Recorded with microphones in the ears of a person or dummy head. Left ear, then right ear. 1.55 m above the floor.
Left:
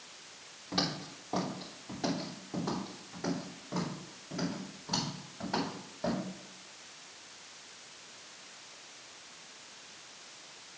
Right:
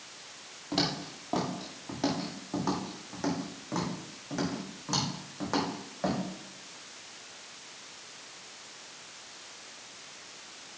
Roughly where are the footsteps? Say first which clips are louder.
Right 3 dB; right.